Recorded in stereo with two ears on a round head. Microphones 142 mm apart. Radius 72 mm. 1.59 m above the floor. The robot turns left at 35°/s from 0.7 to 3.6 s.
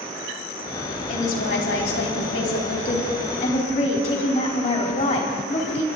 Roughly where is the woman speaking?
Behind left.